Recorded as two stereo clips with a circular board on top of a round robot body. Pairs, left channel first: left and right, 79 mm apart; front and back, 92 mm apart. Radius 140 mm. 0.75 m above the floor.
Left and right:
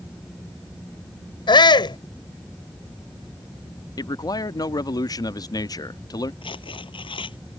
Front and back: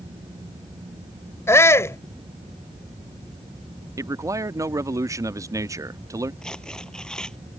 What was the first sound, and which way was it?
A shout, 65° left.